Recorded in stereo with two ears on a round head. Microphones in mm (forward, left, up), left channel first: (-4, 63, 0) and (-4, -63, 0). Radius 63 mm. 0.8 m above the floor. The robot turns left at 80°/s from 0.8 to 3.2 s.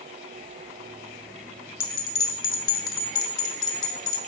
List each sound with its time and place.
1.8 s a bell: 15° left (ahead or behind), 1.1 m; by 4.2 s 50° left (ahead or behind), 1.1 m